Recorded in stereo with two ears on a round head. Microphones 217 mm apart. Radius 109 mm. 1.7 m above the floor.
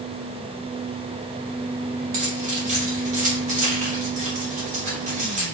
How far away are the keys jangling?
About 2 m.